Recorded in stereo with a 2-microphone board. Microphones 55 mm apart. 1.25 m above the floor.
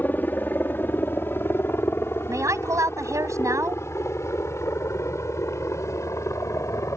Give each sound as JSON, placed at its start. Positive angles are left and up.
{"t": 0.0, "sound": "a helicopter", "side_deg": 35}
{"t": 2.3, "sound": "a woman speaking", "side_deg": -70}